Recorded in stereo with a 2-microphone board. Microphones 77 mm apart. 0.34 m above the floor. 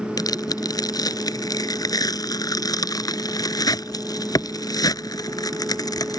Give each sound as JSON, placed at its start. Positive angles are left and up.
{"t": 0.2, "sound": "tearing paper", "side_deg": 55}